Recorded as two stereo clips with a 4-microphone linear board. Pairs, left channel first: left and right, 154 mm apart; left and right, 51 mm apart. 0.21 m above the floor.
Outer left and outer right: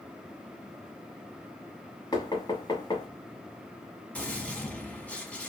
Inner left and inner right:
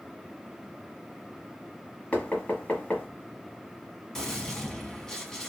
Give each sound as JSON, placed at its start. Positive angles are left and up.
{"t": 2.1, "sound": "knocking", "side_deg": 25, "distance_m": 1.0}
{"t": 4.2, "sound": "a gunshot", "side_deg": 10, "distance_m": 1.2}